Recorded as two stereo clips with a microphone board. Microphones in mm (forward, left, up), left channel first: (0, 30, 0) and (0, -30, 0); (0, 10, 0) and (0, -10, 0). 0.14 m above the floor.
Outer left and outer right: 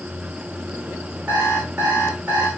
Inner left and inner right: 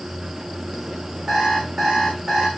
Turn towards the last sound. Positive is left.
turn(degrees=-25)  # may be behind; listen again after turning